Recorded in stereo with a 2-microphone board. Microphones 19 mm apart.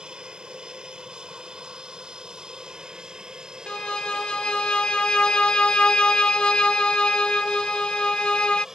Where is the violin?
75° left (ahead or behind).